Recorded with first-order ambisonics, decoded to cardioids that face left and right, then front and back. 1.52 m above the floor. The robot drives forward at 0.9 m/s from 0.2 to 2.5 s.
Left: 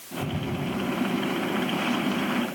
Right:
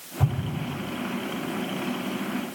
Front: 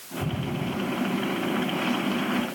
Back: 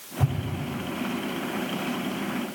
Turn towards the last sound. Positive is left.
turn(degrees=-140)